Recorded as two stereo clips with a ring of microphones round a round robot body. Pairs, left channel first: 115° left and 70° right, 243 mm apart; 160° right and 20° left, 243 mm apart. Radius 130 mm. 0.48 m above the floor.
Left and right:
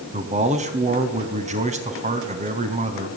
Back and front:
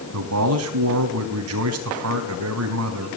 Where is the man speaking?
5° right, 3.5 m.